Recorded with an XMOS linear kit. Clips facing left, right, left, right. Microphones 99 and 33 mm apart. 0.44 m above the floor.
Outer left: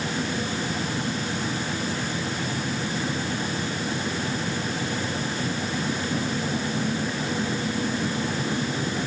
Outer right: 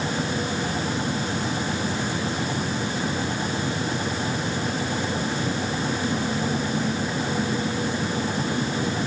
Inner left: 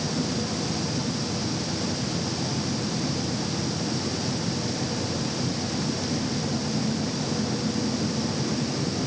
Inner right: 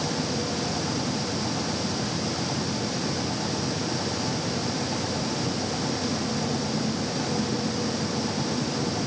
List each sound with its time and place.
Only background noise.